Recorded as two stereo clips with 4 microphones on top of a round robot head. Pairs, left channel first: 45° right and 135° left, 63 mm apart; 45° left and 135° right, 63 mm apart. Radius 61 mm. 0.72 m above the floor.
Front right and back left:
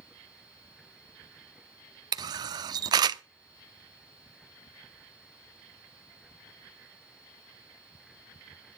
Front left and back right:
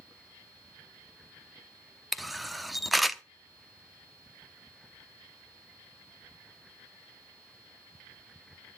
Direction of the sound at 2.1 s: 135° left.